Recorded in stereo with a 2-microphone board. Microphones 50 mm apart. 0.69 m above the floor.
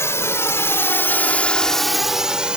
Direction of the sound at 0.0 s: 70° left (ahead or behind).